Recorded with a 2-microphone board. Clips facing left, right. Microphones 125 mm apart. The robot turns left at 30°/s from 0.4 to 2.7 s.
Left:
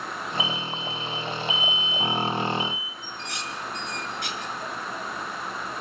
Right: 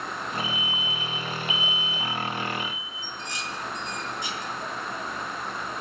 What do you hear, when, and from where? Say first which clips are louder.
0.4 s an alarm: left 2 dB; 5° left, 3 m; by 2.9 s 65° right, 3 m
3.0 s dishes clattering: right 1 dB; 70° left (ahead or behind), 5.5 m